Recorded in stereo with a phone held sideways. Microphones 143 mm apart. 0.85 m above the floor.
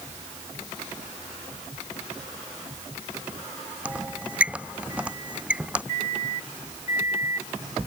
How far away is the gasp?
No gasp in this recording.